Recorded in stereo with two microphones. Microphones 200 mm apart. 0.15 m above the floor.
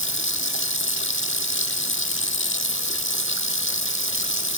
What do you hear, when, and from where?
0.0 s running water: 75° left (ahead or behind), 1.0 m